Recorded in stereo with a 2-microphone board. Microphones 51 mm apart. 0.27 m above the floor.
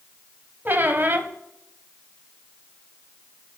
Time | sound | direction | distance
0.7 | a squeak | 40° right (ahead or behind) | 0.7 m